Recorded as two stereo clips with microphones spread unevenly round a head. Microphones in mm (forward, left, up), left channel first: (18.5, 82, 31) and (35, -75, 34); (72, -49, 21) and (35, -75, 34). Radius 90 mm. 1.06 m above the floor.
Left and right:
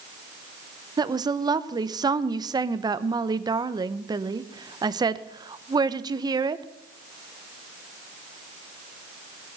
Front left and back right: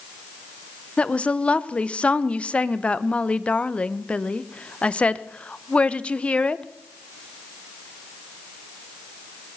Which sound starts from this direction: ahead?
A woman speaking, at 1.0 s.